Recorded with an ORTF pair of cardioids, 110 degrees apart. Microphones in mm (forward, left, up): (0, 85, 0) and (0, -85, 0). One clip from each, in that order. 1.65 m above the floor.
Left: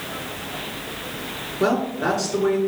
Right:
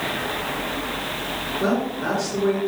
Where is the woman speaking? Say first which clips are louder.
Left 4 dB; 40° left, 3.5 m.